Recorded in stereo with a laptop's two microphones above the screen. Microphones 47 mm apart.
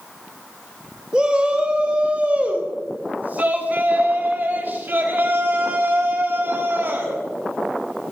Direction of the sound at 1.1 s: 20° right (ahead or behind).